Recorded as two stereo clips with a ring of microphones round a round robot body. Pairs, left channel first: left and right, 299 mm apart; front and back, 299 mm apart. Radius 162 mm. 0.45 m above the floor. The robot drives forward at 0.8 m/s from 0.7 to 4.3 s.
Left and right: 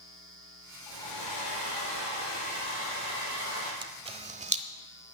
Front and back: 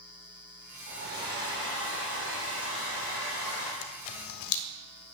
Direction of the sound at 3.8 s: 15° right.